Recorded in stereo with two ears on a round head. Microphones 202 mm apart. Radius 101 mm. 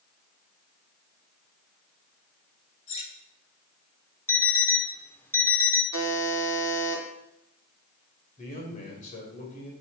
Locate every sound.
2.9 s cutlery clinking: 30° left (ahead or behind), 1.9 m
4.3 s an alarm clock: 10° left (ahead or behind), 0.7 m
5.9 s a buzzer: 80° left, 2.5 m
8.4 s a man speaking: 35° left (ahead or behind), 3 m